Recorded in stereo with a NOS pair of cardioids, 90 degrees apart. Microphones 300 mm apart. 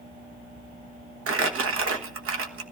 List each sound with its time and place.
1.3 s crumpling: 45° right, 1.5 m